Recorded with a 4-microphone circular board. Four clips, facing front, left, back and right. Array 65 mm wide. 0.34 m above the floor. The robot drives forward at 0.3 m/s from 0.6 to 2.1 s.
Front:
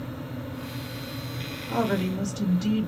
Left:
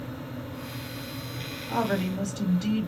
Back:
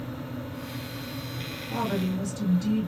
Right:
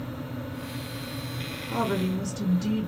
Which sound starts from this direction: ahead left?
A woman speaking, at 1.6 s.